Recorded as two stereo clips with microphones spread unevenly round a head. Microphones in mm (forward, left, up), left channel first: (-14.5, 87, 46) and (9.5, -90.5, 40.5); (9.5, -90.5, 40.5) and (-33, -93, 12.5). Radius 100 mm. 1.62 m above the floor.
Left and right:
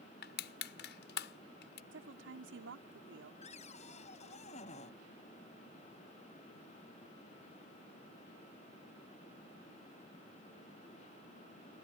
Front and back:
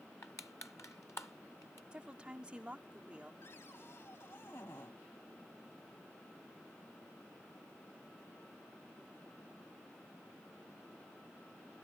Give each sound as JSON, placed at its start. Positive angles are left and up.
{"t": 0.2, "sound": "crushing", "azimuth_deg": 65}
{"t": 1.9, "sound": "a woman speaking", "azimuth_deg": -105}
{"t": 3.4, "sound": "a cupboard door", "azimuth_deg": 45}